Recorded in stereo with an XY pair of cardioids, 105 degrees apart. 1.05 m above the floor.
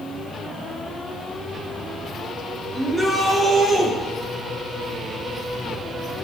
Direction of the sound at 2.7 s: 15° right.